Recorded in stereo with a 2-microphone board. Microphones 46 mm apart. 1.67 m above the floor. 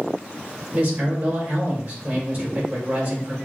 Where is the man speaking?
40° right (ahead or behind), 2 m.